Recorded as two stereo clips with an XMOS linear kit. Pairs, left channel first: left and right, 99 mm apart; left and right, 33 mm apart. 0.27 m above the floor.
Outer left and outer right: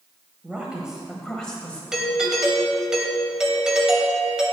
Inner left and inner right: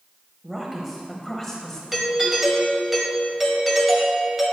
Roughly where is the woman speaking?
Centre.